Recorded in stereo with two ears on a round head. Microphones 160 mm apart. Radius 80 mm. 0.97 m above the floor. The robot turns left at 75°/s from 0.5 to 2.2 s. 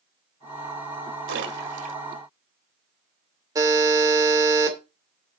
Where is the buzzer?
20° right (ahead or behind), 2.5 m.